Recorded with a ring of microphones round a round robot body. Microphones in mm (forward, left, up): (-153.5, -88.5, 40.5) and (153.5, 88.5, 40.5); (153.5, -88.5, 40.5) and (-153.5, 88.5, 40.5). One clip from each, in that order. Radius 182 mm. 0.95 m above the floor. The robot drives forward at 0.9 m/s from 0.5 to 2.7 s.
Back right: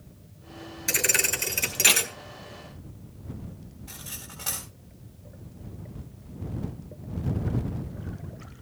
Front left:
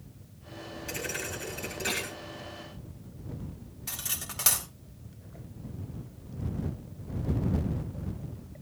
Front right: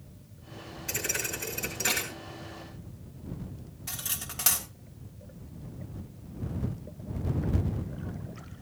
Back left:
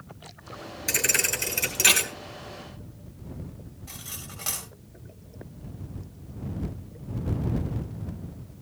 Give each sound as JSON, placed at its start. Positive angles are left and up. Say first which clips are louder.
{"t": 0.9, "sound": "a thud", "louder": "back right 11 dB, back left 7 dB", "azimuth_deg": -160, "distance_m": 1.0}
{"t": 3.9, "sound": "cutlery clinking", "louder": "front left 5 dB, front right 4 dB", "azimuth_deg": 25, "distance_m": 3.5}